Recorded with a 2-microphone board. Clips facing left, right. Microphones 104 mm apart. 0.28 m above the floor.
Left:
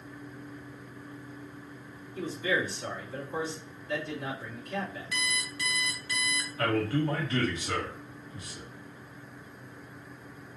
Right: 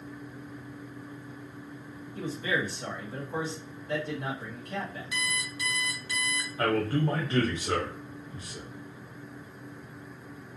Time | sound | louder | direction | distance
2.1 | a man speaking | left 1 dB | 45° right (ahead or behind) | 2 m
5.1 | an alarm clock | right 1 dB | 20° right (ahead or behind) | 1.4 m
6.6 | a man speaking | right 1 dB | 35° right (ahead or behind) | 1.0 m